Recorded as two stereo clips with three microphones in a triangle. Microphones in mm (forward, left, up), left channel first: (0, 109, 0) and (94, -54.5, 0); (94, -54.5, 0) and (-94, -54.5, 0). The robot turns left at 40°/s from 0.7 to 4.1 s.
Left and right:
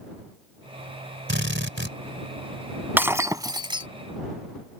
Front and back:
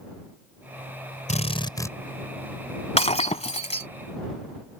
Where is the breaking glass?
15° left; by 3.9 s 25° right.